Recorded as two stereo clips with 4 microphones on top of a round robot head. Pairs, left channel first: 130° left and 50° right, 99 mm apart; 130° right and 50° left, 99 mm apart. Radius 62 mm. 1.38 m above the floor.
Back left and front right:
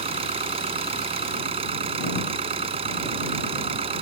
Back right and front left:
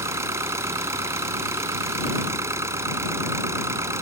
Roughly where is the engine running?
Ahead.